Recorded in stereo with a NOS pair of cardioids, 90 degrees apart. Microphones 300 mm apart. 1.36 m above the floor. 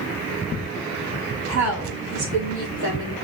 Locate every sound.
1.5 s a woman speaking: 65° right, 4.5 m; by 3.1 s 75° right, 4.5 m